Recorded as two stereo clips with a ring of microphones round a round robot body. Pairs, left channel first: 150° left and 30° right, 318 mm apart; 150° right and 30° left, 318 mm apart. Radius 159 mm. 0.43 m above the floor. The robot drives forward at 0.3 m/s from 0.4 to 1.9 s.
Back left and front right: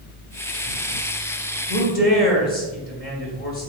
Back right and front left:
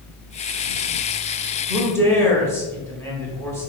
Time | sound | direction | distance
1.7 | a man speaking | 125° left | 0.7 m